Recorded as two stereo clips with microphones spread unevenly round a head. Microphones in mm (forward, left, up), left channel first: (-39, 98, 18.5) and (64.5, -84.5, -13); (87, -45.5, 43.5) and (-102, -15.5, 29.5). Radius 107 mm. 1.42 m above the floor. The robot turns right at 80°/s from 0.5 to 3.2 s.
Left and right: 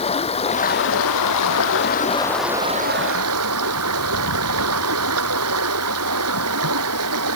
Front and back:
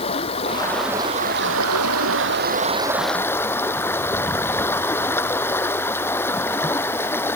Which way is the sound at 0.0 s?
55° left.